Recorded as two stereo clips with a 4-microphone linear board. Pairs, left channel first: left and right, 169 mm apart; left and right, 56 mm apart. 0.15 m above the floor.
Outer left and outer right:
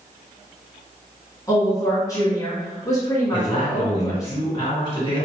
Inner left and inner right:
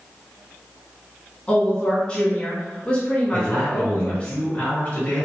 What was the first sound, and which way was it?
A woman speaking, 20° left (ahead or behind).